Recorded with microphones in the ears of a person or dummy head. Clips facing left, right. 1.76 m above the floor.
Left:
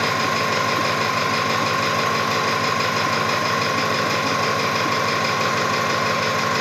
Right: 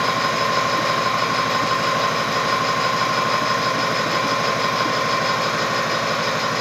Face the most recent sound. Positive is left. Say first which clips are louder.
# right 1 dB
turn(degrees=40)  # may be behind; listen again after turning